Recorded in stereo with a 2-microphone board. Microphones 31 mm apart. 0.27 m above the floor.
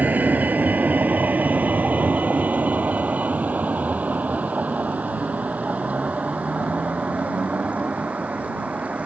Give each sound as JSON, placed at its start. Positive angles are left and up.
{"t": 0.0, "sound": "a vehicle", "side_deg": -80}